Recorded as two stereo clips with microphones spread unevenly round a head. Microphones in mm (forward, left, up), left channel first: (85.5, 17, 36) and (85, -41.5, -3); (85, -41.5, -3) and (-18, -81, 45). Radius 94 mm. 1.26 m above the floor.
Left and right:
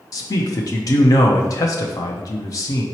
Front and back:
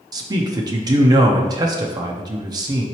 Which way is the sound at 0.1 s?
130° left.